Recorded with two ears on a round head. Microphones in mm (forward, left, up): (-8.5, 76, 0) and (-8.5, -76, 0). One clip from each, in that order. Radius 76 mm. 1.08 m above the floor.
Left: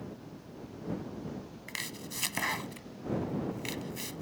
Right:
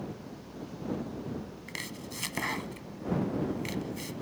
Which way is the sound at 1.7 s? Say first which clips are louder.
Left 1 dB; 25° left (ahead or behind).